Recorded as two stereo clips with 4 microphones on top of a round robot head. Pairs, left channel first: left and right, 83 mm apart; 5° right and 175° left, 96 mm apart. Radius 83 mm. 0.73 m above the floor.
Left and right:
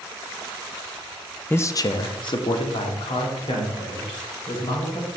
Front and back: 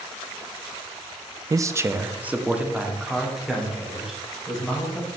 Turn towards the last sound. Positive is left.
turn(degrees=85)